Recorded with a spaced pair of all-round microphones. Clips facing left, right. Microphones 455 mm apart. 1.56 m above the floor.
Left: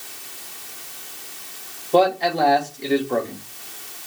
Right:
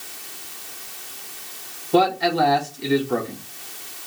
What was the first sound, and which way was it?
A man speaking, 25° right (ahead or behind).